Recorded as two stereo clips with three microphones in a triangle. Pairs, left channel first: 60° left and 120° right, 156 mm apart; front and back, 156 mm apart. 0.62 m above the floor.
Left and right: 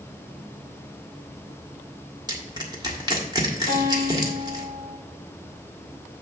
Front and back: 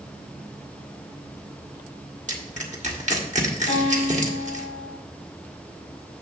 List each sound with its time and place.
2.3 s crushing: 175° right, 1.5 m
3.7 s a guitar: 165° right, 3.5 m